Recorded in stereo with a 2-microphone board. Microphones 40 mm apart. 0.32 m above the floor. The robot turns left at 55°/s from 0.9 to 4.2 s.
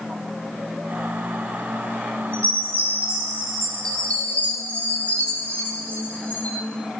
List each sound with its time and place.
2.3 s a chime: 115° right, 6 m; by 6.6 s 145° left, 6 m